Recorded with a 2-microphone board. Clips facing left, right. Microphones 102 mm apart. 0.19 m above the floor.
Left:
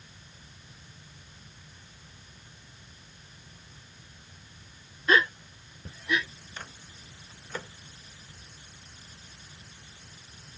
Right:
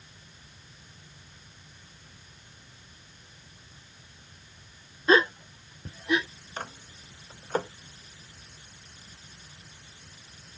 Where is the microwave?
45° right (ahead or behind).